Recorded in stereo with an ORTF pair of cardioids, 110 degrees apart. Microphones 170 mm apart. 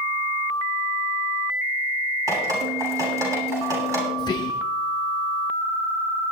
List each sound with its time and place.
2.3 s dripping: 20° right, 9 m
4.2 s whispering: 25° left, 0.5 m